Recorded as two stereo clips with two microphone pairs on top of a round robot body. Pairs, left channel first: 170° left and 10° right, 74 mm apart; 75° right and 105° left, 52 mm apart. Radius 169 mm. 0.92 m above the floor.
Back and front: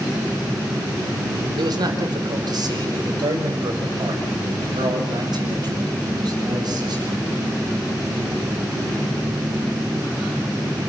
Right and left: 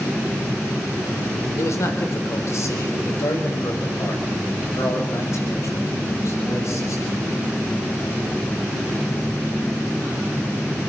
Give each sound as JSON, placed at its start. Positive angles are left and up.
{"t": 1.6, "sound": "a man speaking", "azimuth_deg": -35, "distance_m": 5.0}